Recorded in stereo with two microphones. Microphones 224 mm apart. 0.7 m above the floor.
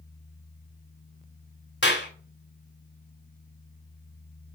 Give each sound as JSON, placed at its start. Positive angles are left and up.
{"t": 1.8, "sound": "a clap", "side_deg": 50, "distance_m": 2.0}